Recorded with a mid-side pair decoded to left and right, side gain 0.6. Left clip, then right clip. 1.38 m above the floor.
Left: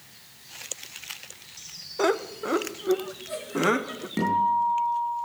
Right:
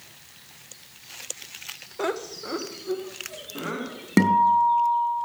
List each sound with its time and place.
2.0 s laughter: 20° left, 1.1 m; by 4.1 s 55° left, 2.5 m
4.2 s a guitar: 60° right, 7 m